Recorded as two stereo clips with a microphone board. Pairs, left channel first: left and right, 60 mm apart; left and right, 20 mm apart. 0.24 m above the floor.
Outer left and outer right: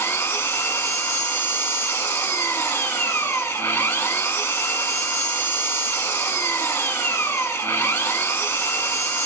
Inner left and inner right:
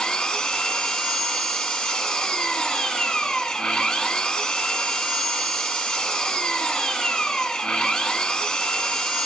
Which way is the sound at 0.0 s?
40° left (ahead or behind).